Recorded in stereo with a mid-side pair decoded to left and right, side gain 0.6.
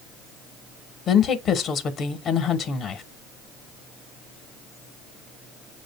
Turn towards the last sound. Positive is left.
turn(degrees=50)